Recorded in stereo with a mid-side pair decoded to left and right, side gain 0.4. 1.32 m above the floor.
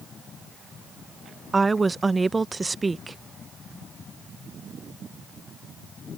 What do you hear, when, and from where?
1.5 s a woman speaking: 30° right